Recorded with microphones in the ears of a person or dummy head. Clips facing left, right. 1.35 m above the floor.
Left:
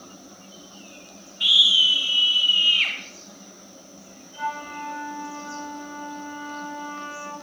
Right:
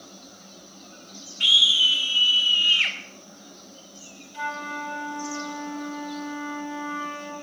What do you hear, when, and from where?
1.4 s a scream: 40° right (ahead or behind), 2.5 m; by 3.0 s 25° right (ahead or behind), 4 m
4.3 s a flute: 50° right (ahead or behind), 6 m